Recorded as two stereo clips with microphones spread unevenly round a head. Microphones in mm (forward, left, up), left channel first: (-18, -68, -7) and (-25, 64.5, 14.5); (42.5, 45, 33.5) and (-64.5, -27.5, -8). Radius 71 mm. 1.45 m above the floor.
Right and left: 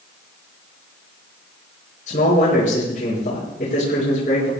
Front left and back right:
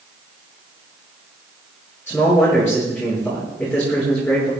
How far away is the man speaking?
About 5.5 m.